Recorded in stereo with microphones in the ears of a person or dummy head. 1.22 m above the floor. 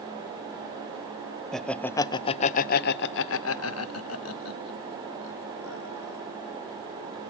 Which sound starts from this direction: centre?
Laughter, at 1.5 s.